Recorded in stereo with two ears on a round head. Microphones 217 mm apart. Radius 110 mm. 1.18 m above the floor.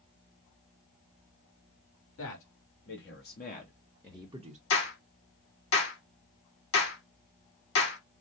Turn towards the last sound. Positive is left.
turn(degrees=60)  # may be behind; listen again after turning